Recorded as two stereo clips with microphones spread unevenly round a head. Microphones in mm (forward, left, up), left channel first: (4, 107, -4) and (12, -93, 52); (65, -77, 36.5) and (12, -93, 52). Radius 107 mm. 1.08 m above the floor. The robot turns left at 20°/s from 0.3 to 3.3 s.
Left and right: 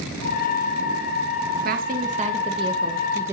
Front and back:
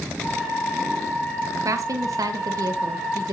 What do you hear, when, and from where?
1.6 s a woman speaking: 140° right, 1.1 m; by 3.3 s 170° right, 1.1 m